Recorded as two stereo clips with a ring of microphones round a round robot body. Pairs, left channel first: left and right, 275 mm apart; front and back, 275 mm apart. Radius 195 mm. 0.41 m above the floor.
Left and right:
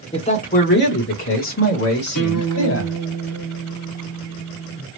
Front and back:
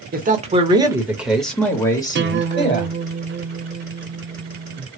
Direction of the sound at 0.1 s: 150° left.